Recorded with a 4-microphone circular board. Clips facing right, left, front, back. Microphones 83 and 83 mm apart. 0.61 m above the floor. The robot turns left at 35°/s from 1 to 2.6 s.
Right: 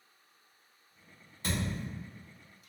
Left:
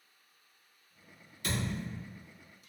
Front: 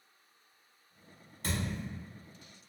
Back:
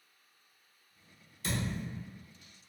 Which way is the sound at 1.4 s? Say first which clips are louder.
Even, back 1 dB; 40° right.